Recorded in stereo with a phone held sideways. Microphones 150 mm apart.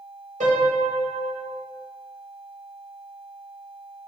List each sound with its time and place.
0.4 s a piano: 55° right (ahead or behind), 2 m